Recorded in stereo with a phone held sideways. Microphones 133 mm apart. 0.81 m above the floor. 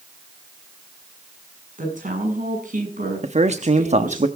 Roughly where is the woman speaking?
Right.